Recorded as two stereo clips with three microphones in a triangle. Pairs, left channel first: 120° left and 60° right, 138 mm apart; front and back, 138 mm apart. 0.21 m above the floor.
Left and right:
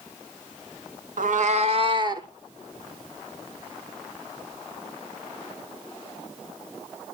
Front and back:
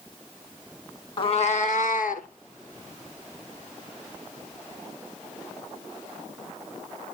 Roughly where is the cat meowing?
Ahead right.